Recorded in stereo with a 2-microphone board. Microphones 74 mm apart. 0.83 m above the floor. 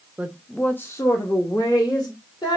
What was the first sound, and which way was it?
A woman speaking, 20° right (ahead or behind).